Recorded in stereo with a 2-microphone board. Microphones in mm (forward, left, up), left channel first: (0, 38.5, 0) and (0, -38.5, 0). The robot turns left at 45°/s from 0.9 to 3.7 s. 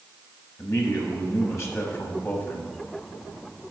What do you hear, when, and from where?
0.6 s a man speaking: 110° left, 1.1 m; by 2.7 s 25° left, 1.1 m